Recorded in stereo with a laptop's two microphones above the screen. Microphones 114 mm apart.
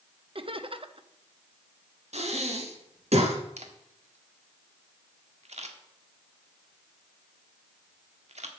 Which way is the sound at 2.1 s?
75° right (ahead or behind).